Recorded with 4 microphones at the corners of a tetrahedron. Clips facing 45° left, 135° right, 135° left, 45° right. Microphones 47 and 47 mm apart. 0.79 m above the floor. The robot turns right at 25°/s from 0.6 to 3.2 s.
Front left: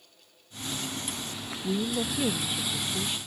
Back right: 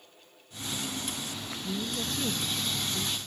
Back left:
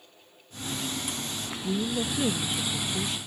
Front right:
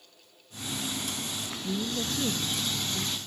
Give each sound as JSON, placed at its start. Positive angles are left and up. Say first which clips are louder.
{"t": 1.6, "sound": "a woman speaking", "louder": "front left 6 dB, back left 3 dB", "azimuth_deg": 75, "distance_m": 0.7}